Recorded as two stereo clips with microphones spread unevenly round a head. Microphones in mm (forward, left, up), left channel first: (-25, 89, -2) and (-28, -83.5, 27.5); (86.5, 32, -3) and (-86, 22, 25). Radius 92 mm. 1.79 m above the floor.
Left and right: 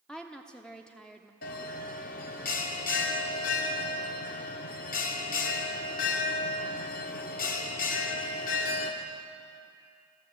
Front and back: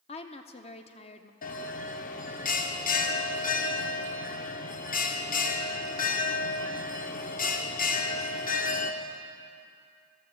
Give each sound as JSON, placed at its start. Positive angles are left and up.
{"t": 0.1, "sound": "a woman speaking", "azimuth_deg": -15, "distance_m": 0.6}
{"t": 1.4, "sound": "a bell", "azimuth_deg": 45, "distance_m": 0.8}